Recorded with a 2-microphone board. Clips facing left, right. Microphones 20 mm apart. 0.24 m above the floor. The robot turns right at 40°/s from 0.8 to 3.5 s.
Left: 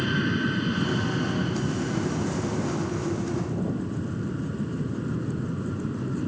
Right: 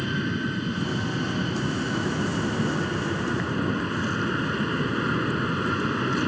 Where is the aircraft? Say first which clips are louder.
Left 2 dB; 170° left; by 6.3 s 80° right.